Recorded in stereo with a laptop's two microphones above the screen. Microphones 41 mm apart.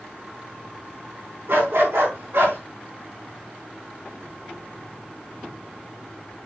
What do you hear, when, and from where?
1.5 s a dog barking: 80° right, 4 m